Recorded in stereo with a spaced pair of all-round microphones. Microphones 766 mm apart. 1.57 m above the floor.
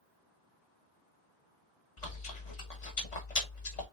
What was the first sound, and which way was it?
Chewing, 55° left (ahead or behind).